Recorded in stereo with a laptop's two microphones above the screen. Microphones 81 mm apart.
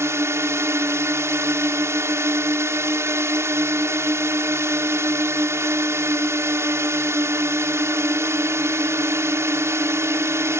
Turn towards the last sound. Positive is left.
turn(degrees=-35)  # may be behind; listen again after turning